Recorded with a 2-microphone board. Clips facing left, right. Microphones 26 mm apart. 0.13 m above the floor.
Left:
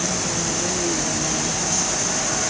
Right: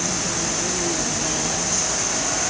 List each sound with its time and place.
Only background noise.